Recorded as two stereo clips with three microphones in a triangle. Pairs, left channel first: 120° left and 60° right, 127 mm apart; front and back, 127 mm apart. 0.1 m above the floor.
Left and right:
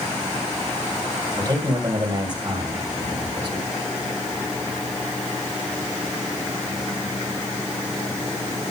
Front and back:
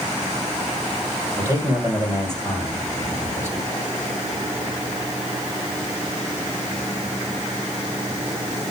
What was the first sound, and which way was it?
A man speaking, 110° right.